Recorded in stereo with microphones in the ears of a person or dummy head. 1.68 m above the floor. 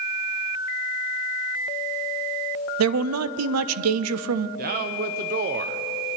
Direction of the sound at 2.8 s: 85° right.